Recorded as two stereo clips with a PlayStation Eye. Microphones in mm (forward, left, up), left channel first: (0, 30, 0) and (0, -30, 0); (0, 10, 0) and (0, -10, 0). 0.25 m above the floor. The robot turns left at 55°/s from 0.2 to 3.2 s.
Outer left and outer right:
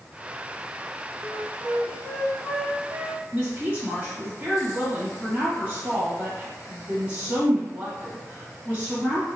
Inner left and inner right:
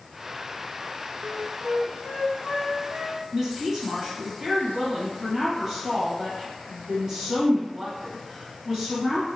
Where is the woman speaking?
30° right (ahead or behind), 1.4 m.